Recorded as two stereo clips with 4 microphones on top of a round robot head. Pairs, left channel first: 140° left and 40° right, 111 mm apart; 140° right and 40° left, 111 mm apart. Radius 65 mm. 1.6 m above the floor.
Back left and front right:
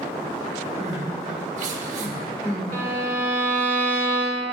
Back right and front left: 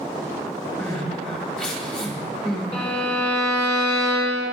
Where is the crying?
55° right, 1.1 m.